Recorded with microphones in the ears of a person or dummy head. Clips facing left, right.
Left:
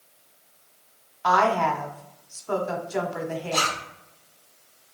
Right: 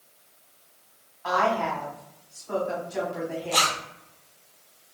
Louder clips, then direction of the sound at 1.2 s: Left 3 dB; 60° left (ahead or behind).